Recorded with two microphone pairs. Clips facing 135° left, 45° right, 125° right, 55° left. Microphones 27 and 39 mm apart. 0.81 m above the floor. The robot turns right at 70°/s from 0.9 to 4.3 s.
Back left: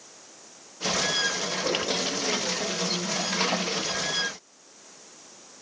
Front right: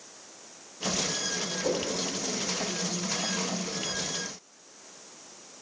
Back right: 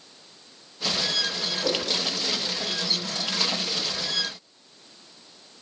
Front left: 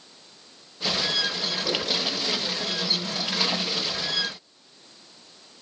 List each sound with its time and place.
1.6 s a whoosh: 145° right, 2.5 m; by 1.9 s 125° right, 2.5 m